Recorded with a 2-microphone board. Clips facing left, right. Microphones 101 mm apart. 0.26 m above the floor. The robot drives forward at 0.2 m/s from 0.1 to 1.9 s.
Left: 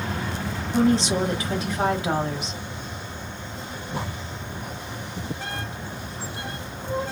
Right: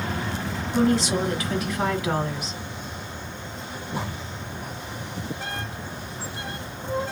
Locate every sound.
0.7 s a woman speaking: 30° left (ahead or behind), 1.0 m